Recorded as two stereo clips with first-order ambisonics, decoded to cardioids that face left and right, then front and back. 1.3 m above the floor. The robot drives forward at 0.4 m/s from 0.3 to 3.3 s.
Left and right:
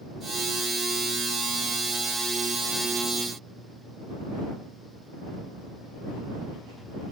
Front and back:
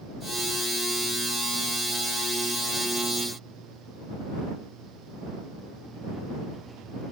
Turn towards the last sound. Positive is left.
No sound to turn to.